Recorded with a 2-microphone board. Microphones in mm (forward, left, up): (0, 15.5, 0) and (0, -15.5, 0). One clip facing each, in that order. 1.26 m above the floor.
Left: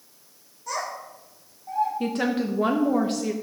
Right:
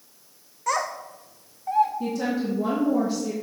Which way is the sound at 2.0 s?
55° left (ahead or behind).